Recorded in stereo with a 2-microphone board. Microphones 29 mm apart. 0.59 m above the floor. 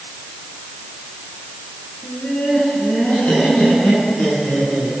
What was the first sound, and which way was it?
Laughter, 60° left (ahead or behind).